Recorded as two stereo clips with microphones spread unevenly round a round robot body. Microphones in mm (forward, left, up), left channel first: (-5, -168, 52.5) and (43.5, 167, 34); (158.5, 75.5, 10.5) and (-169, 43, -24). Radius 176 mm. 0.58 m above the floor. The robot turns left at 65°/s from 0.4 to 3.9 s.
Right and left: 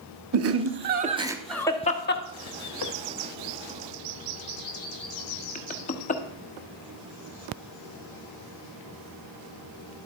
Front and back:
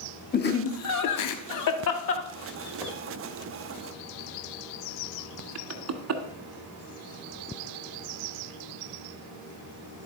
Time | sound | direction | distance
0.3 | laughter | 65° left | 1.1 m